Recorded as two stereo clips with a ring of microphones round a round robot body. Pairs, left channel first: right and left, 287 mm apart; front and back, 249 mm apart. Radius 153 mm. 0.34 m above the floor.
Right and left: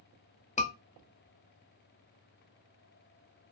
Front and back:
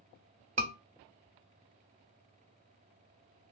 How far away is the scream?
About 1.1 m.